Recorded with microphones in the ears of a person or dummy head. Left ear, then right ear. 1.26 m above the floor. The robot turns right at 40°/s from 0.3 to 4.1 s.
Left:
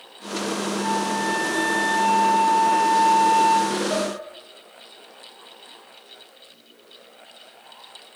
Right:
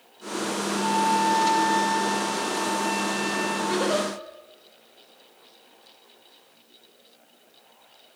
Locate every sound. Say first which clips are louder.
0.8 s a flute: right 4 dB; straight ahead, 3 m; by 3.6 s 115° left, 3 m
3.7 s a giggle: even; 20° right (ahead or behind), 1.0 m; by 4.1 s 15° right (ahead or behind), 1.0 m